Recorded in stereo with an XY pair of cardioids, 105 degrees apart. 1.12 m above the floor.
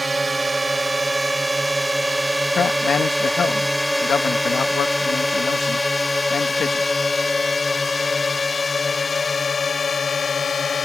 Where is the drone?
15° right; by 10.8 s 40° left.